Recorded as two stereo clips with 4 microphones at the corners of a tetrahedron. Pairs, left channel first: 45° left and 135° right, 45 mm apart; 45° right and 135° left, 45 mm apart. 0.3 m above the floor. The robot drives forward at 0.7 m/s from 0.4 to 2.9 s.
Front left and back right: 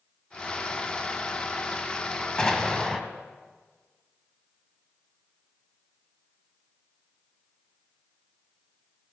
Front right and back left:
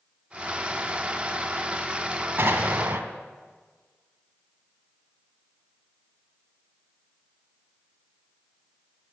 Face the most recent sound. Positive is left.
turn(degrees=135)